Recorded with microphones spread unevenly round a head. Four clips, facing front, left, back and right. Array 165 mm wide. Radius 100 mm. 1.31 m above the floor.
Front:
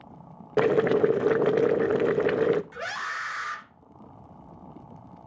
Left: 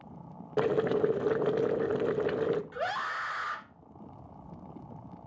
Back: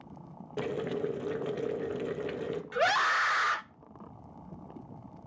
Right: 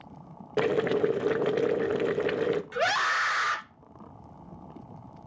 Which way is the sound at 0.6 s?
10° right.